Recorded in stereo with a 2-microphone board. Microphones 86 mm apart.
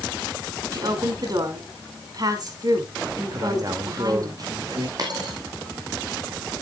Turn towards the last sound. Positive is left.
turn(degrees=-50)  # may be behind; listen again after turning